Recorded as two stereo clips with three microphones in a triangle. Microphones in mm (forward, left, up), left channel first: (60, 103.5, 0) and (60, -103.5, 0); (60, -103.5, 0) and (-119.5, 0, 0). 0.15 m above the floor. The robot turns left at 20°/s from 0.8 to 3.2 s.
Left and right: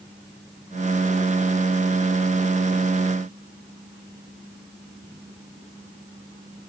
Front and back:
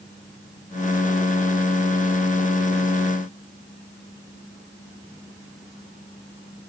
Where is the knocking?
I don't hear knocking.